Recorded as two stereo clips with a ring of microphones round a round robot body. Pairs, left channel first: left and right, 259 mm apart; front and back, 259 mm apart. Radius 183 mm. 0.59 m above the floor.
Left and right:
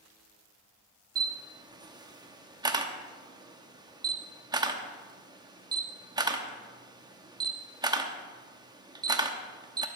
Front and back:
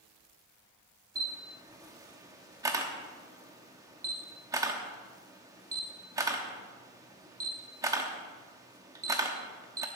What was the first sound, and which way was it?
A camera shutter, 130° right.